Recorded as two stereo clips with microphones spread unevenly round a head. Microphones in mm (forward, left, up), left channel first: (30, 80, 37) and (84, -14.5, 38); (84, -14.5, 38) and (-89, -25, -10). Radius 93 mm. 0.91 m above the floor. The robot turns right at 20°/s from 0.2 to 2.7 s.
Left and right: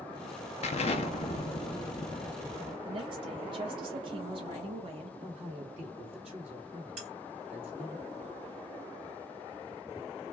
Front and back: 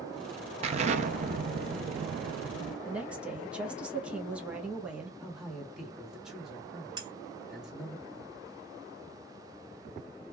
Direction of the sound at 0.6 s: 135° left.